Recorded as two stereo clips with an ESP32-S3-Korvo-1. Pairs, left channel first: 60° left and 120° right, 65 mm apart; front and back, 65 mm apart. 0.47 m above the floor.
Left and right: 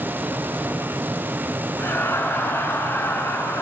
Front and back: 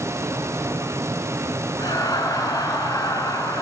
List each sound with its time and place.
1.8 s laughter: 5° left, 5 m